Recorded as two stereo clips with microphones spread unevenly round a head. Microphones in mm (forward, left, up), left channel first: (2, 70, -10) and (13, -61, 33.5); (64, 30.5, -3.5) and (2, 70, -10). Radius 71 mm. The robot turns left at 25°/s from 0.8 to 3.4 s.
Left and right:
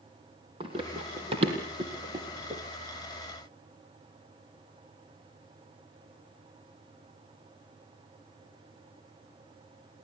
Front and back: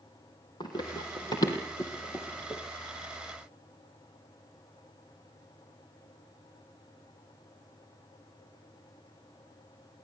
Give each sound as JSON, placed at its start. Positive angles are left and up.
{"t": 0.6, "sound": "running footsteps", "azimuth_deg": -55, "distance_m": 3.0}